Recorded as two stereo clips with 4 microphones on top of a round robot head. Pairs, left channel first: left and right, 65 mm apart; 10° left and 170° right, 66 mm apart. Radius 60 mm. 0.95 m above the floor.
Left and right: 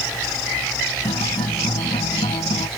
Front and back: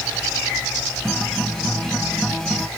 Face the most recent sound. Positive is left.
turn(degrees=95)